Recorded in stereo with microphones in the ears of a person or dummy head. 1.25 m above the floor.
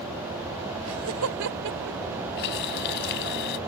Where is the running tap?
55° left (ahead or behind).